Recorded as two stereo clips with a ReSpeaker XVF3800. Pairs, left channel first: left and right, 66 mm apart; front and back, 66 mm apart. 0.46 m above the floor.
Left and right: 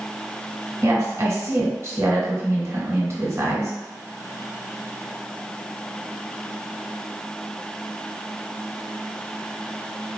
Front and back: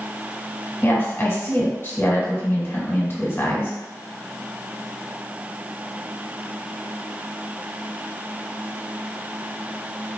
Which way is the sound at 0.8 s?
55° right.